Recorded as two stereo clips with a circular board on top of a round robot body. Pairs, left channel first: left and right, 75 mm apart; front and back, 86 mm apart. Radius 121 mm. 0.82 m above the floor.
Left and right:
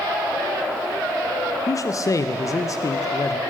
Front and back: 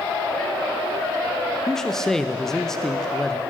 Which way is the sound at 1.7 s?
85° left.